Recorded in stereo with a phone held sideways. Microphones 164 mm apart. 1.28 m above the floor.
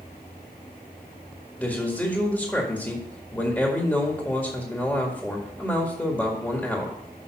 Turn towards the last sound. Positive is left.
turn(degrees=5)  # may be behind; listen again after turning